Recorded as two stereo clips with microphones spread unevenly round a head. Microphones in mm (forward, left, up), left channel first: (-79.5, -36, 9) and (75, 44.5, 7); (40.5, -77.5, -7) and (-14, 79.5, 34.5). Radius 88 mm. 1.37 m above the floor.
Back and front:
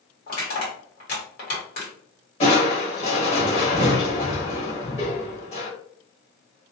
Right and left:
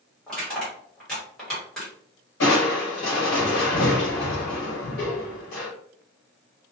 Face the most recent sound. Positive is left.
turn(degrees=-95)